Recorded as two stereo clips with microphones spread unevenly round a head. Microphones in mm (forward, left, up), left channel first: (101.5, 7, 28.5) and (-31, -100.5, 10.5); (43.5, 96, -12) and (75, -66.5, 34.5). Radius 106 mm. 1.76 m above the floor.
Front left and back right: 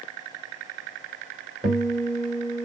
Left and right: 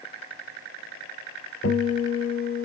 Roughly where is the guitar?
Behind left.